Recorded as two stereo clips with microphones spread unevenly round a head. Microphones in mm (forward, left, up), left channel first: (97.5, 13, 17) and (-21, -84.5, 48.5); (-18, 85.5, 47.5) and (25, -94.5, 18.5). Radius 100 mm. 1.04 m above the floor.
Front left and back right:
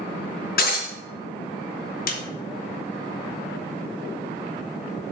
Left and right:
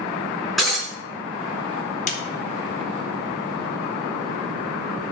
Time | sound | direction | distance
0.6 | breaking glass | 15° left | 4 m
2.1 | a snare drum | 50° left | 1.4 m